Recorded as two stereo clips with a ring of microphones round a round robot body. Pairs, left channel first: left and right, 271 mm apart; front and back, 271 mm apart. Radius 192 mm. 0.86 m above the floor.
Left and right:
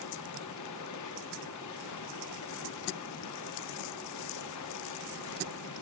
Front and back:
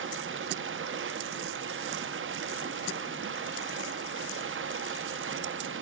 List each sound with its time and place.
0.0 s running water: 130° left, 0.9 m